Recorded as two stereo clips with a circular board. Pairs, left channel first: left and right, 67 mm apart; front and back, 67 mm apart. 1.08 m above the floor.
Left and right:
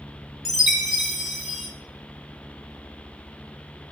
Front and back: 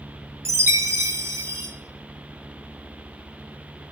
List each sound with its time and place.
0.5 s a chime: 175° right, 0.9 m